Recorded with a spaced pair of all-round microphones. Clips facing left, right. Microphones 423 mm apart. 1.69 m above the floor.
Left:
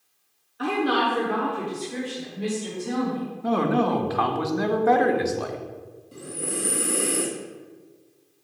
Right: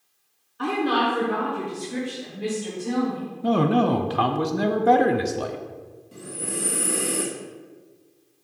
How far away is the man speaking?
About 0.6 m.